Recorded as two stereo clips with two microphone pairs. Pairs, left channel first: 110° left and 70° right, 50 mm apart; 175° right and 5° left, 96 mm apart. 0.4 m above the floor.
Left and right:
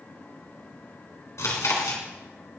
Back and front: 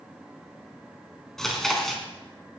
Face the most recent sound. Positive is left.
turn(degrees=100)